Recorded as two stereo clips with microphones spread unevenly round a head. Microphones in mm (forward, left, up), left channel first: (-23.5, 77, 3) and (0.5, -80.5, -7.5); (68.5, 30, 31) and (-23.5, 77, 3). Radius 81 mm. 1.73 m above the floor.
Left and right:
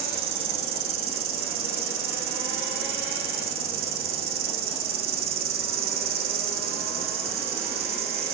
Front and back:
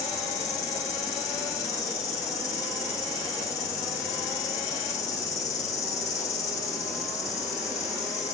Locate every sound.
0.0 s an insect: 75° right, 1.9 m